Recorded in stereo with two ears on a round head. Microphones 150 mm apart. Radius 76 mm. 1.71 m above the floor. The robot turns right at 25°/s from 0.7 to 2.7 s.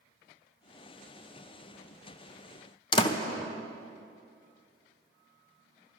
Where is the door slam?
30° left (ahead or behind), 0.7 m.